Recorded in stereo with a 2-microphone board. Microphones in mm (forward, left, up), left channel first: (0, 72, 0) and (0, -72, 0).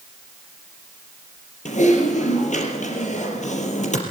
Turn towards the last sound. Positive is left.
turn(degrees=60)  # may be behind; listen again after turning